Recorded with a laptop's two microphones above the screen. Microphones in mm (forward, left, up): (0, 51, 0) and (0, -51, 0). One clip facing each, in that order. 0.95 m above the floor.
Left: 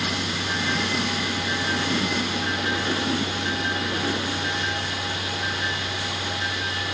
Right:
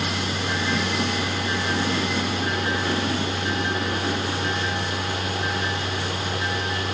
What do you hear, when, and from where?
0.0 s a fan: 45° right (ahead or behind), 1.0 m